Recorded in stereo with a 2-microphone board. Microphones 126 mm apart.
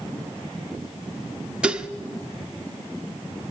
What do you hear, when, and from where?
1.6 s dishes clattering: 10° right (ahead or behind), 1.2 m